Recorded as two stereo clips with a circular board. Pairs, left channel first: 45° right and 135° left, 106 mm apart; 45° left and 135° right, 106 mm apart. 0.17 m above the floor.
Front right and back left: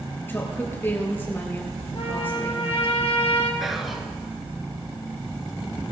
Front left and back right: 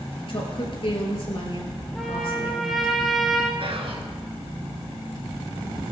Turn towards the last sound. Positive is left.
turn(degrees=-135)